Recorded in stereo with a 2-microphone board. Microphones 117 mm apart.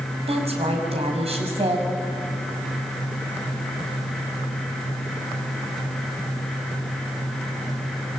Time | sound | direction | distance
0.3 | a woman speaking | 60° right (ahead or behind) | 5.5 m